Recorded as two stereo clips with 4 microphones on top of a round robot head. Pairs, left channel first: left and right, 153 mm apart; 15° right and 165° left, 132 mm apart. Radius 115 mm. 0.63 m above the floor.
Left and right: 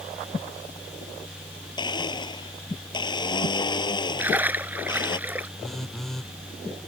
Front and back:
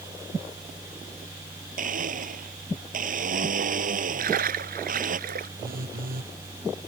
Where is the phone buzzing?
Straight behind.